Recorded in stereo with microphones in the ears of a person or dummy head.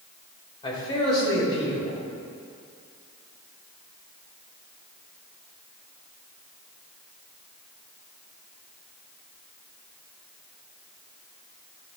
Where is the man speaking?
25° left (ahead or behind), 1.6 m.